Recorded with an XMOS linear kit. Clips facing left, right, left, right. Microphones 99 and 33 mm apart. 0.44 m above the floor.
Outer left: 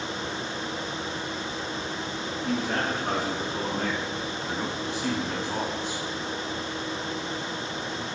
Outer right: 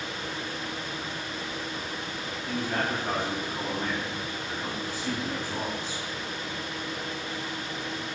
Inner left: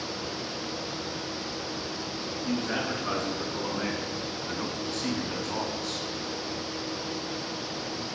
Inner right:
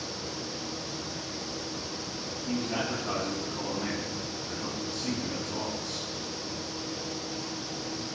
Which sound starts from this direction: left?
A man speaking, at 2.4 s.